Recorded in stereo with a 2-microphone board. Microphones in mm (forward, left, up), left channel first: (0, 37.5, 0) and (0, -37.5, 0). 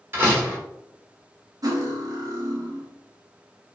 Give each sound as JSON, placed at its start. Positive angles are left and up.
{"t": 0.1, "sound": "a door slam", "side_deg": -30, "distance_m": 1.0}
{"t": 1.6, "sound": "cutlery clinking", "side_deg": -50, "distance_m": 0.8}